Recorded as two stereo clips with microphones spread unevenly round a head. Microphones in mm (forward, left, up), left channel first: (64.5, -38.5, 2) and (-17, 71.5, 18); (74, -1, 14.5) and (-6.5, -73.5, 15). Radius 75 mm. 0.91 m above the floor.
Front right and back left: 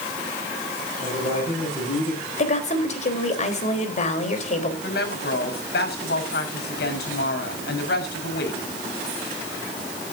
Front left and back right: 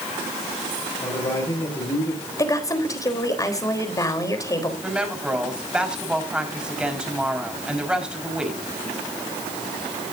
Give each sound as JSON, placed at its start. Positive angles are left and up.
{"t": 1.0, "sound": "a man speaking", "azimuth_deg": -5, "distance_m": 6.0}
{"t": 2.4, "sound": "a woman speaking", "azimuth_deg": -15, "distance_m": 4.0}
{"t": 4.8, "sound": "a woman speaking", "azimuth_deg": -55, "distance_m": 5.0}